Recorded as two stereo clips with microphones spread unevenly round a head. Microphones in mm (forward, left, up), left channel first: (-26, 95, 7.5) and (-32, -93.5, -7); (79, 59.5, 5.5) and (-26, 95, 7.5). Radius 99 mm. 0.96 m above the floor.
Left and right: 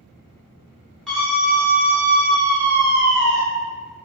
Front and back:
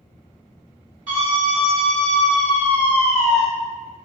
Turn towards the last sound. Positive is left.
turn(degrees=-100)